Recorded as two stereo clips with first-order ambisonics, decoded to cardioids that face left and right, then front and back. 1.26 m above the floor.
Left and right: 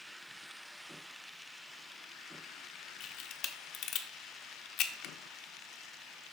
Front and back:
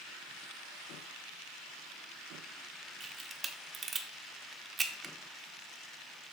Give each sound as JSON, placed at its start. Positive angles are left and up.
{"t": 3.0, "sound": "a camera shutter", "azimuth_deg": 120, "distance_m": 0.7}